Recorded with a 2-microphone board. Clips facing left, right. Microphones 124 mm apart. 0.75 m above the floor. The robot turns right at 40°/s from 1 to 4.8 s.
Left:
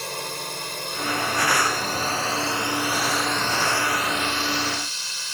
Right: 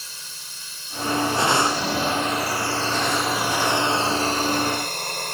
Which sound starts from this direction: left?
A drone, at 0.0 s.